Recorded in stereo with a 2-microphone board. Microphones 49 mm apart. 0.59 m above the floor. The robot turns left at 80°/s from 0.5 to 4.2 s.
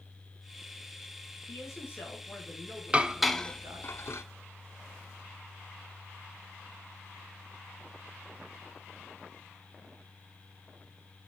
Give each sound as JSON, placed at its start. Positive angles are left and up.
{"t": 1.5, "sound": "a man speaking", "azimuth_deg": 80, "distance_m": 5.5}
{"t": 2.9, "sound": "dishes clattering", "side_deg": -25, "distance_m": 0.8}